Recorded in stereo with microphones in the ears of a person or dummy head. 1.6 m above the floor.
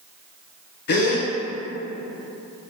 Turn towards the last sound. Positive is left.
turn(degrees=55)  # may be behind; listen again after turning